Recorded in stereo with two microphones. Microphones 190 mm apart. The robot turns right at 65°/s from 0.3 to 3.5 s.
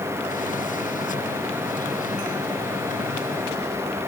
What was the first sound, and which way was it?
Only background noise.